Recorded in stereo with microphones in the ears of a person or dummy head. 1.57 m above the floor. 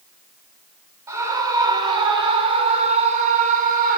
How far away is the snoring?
I don't hear snoring.